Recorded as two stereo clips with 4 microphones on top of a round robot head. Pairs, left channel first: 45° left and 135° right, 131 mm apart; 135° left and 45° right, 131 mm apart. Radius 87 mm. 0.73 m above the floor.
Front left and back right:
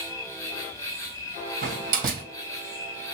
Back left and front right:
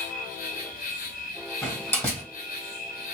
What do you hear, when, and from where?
0.0 s an insect: 115° left, 0.9 m
1.6 s a door slam: 155° right, 2.5 m